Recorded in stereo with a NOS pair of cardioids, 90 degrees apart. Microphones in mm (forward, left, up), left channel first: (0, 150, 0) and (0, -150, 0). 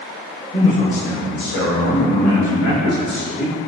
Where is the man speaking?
15° left, 1.1 m; by 3.5 s 75° left, 2.5 m.